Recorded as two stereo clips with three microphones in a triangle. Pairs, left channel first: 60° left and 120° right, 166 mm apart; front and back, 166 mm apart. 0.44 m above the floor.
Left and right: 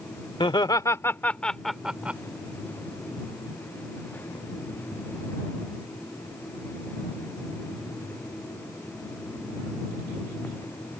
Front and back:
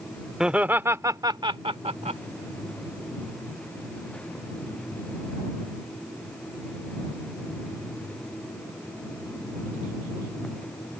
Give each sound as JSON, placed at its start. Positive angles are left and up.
{"t": 0.4, "sound": "laughter", "azimuth_deg": 95}